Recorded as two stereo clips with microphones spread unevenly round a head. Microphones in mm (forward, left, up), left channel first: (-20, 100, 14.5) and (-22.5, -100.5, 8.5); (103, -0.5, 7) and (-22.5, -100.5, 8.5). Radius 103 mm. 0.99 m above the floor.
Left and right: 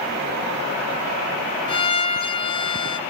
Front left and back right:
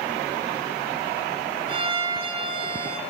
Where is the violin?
155° left, 2.5 m.